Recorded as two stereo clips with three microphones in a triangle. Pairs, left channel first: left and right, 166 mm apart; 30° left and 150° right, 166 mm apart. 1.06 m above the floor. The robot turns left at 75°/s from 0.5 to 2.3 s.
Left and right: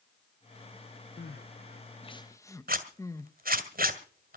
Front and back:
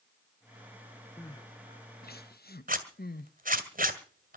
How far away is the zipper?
About 1.8 m.